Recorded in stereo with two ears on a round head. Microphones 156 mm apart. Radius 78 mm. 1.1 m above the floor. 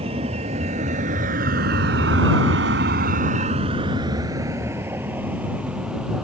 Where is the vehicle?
35° right (ahead or behind); by 6.2 s 5° right (ahead or behind).